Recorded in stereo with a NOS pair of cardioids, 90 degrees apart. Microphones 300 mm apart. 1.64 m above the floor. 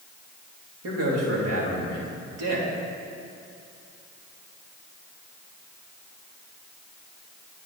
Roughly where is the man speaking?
Ahead right.